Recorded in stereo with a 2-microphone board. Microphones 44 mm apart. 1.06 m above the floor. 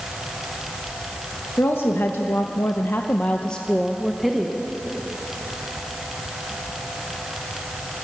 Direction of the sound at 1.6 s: 60° left (ahead or behind).